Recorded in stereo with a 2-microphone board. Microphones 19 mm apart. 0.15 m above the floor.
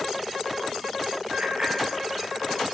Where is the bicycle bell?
60° right (ahead or behind), 7 m.